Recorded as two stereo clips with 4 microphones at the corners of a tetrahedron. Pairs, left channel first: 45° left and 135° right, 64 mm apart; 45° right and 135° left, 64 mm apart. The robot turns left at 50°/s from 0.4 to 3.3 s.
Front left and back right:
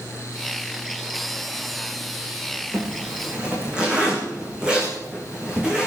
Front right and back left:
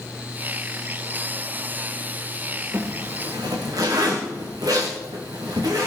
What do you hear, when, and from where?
2.7 s a zipper: 175° left, 5 m; by 5.9 s 150° left, 5 m